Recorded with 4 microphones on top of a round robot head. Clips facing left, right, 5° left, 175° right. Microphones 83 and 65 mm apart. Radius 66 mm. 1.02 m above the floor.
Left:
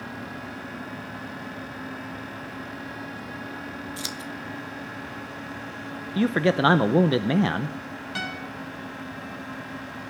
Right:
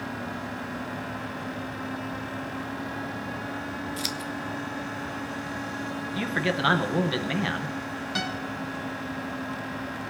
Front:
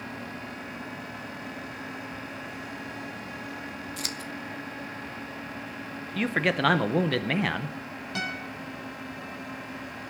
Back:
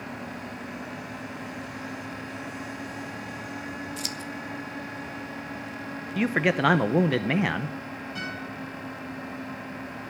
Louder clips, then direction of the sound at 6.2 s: Left 7 dB, back 2 dB; 110° left.